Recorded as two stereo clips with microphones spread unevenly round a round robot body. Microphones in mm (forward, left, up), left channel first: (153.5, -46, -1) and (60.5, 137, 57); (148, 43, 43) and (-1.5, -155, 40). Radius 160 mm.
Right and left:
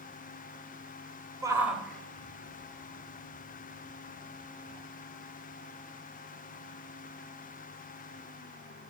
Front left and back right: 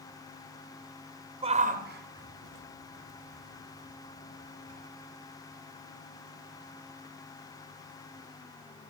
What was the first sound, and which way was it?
A shout, 155° right.